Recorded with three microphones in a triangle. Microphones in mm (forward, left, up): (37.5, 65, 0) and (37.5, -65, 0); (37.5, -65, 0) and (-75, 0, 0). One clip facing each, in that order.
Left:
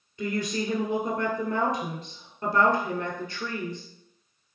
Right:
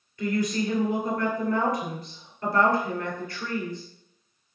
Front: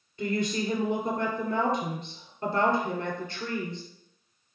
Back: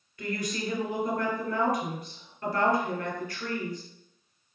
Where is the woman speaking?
25° left, 1.8 m.